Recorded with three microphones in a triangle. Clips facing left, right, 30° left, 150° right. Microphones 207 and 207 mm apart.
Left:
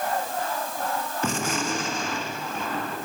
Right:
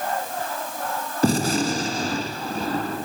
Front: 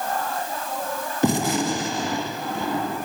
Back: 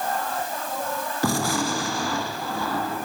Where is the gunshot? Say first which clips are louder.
Right 9 dB, front 4 dB; 40° right, 2.5 m.